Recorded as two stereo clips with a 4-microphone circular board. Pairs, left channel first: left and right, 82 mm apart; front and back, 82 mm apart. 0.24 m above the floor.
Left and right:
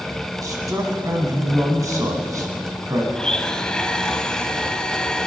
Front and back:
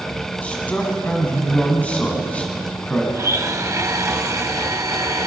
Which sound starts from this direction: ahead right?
A man speaking, at 0.4 s.